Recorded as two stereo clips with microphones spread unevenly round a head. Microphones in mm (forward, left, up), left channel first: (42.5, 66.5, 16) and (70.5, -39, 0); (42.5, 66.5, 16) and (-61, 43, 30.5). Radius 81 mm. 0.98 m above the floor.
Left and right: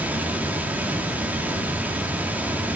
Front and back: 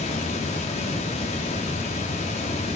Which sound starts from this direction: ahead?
Running water, at 0.0 s.